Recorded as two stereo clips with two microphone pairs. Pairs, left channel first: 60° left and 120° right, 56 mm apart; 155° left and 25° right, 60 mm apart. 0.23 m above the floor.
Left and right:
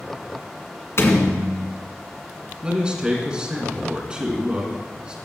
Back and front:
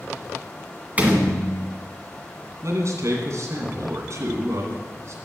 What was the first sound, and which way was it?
A door slam, 35° left.